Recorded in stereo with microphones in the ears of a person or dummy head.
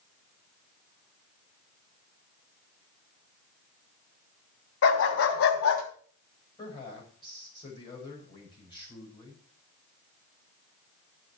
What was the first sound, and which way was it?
A dog barking, 75° left (ahead or behind).